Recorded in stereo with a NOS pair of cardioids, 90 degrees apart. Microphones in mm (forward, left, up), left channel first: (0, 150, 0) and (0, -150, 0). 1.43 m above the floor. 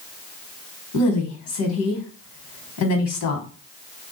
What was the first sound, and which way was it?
A woman speaking, 65° left.